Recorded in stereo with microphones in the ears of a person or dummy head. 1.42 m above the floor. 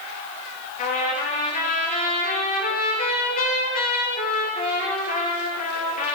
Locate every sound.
0.8 s a trumpet: 45° left (ahead or behind), 8.5 m